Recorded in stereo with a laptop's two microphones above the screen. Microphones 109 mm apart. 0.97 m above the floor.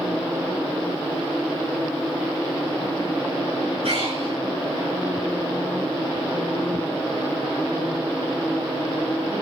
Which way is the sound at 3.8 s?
80° right.